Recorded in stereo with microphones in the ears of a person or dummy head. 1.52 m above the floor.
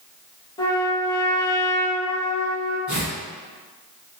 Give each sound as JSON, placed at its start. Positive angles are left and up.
{"t": 0.6, "sound": "a trumpet", "side_deg": 20, "distance_m": 0.7}
{"t": 2.9, "sound": "tearing paper", "side_deg": -10, "distance_m": 1.0}